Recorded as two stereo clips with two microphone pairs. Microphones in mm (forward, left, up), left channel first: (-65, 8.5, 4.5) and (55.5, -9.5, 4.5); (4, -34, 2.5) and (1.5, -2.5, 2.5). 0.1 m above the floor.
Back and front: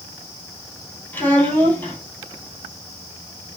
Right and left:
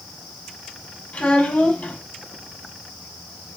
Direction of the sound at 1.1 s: 115° right.